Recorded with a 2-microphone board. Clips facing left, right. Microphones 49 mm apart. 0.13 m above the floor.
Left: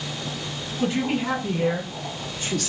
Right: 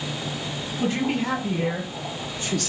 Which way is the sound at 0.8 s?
5° left (ahead or behind).